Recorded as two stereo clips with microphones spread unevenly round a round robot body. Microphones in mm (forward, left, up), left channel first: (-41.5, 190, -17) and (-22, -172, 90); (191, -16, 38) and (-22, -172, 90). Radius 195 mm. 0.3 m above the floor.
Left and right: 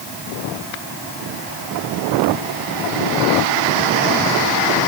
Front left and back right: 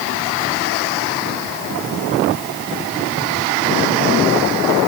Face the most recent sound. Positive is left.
No sound to turn to.